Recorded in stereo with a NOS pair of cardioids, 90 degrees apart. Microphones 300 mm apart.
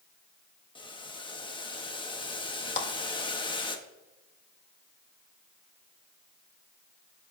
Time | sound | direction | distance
0.8 | boiling | 15° left | 1.2 m
2.8 | a clap | 40° left | 1.6 m